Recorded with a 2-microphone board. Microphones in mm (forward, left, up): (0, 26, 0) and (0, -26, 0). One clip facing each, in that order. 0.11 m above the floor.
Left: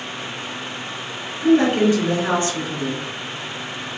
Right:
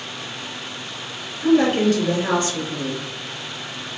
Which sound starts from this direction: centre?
A woman speaking, at 1.4 s.